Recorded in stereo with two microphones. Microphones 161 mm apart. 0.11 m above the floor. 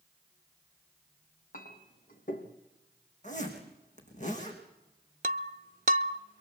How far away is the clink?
About 3 m.